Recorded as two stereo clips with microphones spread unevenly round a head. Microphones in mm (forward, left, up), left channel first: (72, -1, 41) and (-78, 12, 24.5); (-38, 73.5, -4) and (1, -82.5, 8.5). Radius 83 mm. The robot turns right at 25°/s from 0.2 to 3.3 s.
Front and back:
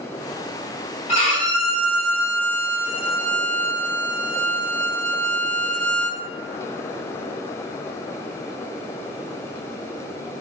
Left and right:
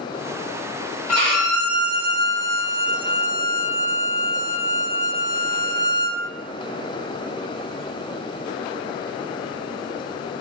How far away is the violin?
About 2.0 m.